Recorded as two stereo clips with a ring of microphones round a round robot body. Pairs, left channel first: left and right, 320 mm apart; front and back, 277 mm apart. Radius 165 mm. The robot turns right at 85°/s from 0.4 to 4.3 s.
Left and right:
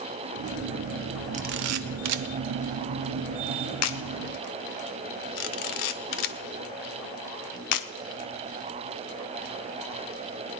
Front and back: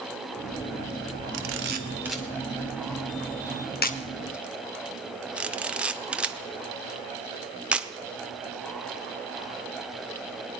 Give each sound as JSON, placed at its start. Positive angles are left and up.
{"t": 1.3, "sound": "a camera shutter", "azimuth_deg": -160, "distance_m": 0.7}